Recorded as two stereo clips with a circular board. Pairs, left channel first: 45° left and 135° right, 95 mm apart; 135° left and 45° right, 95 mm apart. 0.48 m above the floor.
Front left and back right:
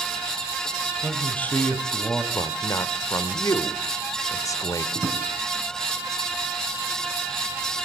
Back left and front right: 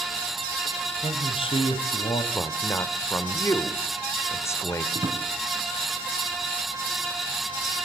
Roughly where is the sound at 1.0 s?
Behind left.